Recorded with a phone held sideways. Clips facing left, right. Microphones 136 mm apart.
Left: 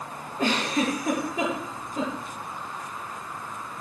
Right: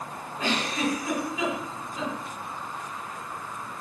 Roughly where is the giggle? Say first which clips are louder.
Left 3 dB; left.